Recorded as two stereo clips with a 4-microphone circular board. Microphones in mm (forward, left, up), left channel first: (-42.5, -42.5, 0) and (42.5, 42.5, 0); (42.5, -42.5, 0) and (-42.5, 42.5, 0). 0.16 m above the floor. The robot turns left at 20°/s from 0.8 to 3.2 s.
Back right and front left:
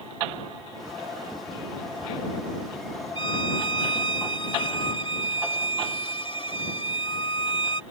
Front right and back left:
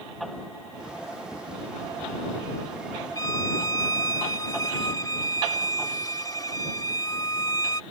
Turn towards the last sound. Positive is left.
turn(degrees=-100)